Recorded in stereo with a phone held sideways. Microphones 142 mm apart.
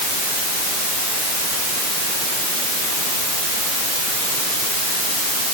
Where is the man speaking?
No man speaking in this recording.